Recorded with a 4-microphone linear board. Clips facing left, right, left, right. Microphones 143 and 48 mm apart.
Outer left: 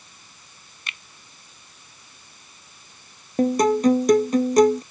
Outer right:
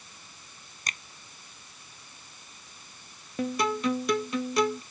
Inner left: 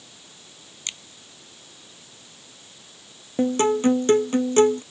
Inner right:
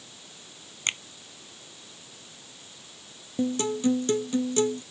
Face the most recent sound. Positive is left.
turn(degrees=40)  # may be behind; listen again after turning